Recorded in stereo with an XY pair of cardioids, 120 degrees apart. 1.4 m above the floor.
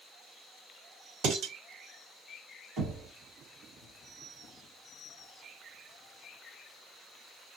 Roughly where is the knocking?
Ahead right.